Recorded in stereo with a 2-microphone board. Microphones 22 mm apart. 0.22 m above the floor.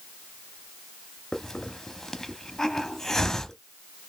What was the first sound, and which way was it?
A hiss, 15° left (ahead or behind).